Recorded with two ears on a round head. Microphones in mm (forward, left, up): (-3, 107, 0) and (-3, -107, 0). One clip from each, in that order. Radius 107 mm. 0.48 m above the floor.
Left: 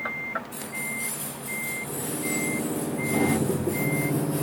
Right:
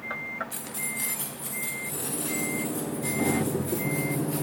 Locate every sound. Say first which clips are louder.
0.5 s keys jangling: left 3 dB; 60° right (ahead or behind), 2 m; by 4.4 s 80° right, 6.5 m